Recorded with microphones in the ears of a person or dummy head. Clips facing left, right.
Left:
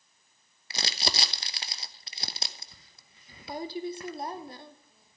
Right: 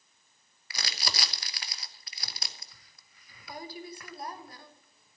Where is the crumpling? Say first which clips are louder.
Left 5 dB; 25° left (ahead or behind), 1.0 m.